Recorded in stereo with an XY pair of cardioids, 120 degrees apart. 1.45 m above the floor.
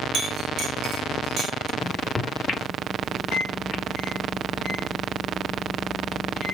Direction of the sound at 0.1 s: 55° right.